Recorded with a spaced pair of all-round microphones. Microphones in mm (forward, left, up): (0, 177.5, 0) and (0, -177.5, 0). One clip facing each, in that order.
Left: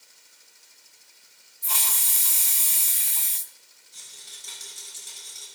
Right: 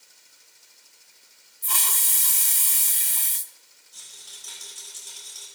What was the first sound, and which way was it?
A hiss, 20° right (ahead or behind).